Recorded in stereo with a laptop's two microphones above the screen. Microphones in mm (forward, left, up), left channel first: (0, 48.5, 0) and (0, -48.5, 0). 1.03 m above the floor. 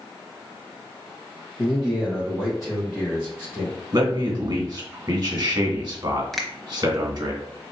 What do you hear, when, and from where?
1.6 s a man speaking: 5° right (ahead or behind), 0.7 m; by 3.8 s centre (ahead or behind), 3 m
3.9 s a man speaking: 50° right (ahead or behind), 1.2 m
6.3 s a finger snap: centre (ahead or behind), 0.7 m